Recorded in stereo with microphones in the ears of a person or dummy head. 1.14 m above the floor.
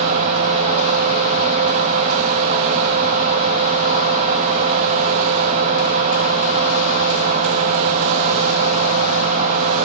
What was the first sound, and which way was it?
A fan, 40° right (ahead or behind).